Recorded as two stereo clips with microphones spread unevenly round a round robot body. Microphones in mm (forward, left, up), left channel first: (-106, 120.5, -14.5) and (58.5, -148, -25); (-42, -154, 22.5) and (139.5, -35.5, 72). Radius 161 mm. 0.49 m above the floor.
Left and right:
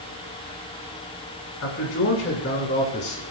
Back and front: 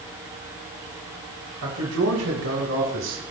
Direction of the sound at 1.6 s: 75° left.